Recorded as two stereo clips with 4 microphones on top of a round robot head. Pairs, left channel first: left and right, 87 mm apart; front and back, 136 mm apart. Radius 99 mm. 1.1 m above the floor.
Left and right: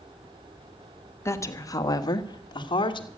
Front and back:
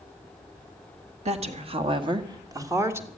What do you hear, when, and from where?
1.2 s a woman speaking: 145° left, 1.6 m; by 3.1 s 105° left, 1.7 m